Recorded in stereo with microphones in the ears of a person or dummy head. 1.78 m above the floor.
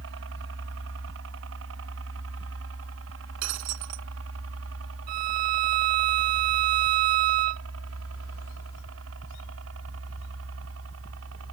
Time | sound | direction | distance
0.0 | a helicopter | 70° right (ahead or behind) | ?
3.4 | breaking glass | 75° right (ahead or behind) | ?
5.1 | a violin | 45° right (ahead or behind) | ?